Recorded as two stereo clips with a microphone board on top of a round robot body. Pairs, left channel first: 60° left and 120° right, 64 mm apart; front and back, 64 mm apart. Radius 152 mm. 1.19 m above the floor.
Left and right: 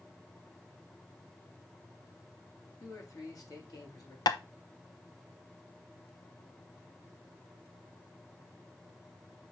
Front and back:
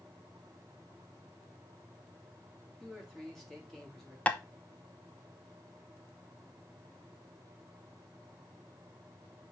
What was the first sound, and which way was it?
A man speaking, 90° left.